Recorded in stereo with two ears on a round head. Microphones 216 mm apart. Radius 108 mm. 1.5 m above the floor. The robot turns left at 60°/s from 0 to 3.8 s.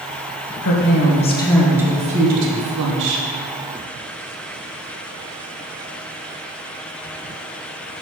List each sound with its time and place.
0.6 s a woman speaking: 60° left, 1.5 m; by 3.3 s 100° right, 1.5 m